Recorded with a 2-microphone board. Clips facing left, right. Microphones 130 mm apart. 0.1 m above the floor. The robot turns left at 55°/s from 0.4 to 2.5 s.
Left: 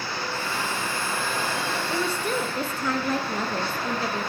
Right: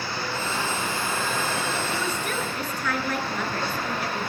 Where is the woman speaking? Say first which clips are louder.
Left 2 dB; 90° left, 1.3 m; by 4.3 s 60° left, 1.3 m.